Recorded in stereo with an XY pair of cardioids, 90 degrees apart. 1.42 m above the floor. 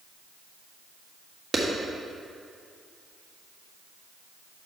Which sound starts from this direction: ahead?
A clap, at 1.5 s.